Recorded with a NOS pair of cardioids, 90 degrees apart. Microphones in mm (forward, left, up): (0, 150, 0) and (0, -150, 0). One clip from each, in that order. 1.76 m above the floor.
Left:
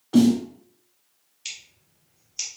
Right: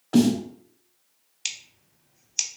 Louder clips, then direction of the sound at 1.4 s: Right 4 dB; 60° right.